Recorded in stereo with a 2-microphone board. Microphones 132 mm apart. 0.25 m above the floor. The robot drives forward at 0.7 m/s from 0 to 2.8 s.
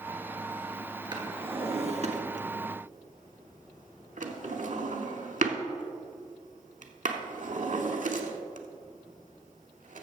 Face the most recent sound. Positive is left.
turn(degrees=-75)  # may be behind; listen again after turning